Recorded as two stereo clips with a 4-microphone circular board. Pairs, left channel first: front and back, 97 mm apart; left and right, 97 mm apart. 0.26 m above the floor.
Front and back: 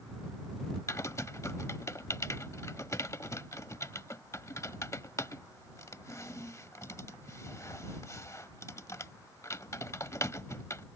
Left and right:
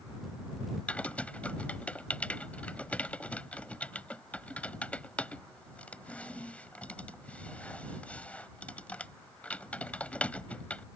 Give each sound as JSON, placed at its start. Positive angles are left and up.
{"t": 0.9, "sound": "typing on a keyboard", "azimuth_deg": 25}